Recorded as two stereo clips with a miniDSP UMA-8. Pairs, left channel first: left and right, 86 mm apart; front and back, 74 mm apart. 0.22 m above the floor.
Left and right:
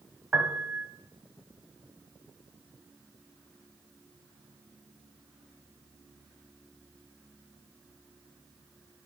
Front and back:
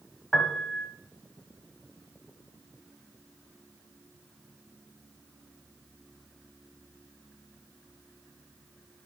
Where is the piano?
70° right, 1.2 m.